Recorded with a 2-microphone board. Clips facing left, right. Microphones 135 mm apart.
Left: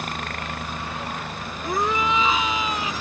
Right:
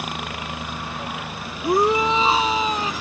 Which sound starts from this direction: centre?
A helicopter, at 0.0 s.